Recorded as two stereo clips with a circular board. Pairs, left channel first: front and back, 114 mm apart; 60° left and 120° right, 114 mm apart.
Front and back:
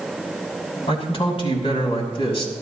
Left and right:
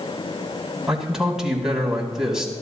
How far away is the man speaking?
About 3 m.